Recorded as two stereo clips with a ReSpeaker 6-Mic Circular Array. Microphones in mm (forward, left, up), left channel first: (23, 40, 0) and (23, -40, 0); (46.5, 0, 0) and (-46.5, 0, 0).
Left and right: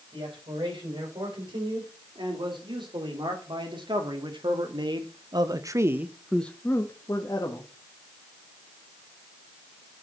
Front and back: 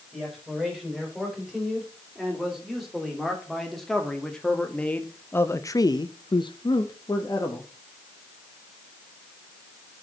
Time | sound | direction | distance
0.1 | a man speaking | 95° right | 5.5 m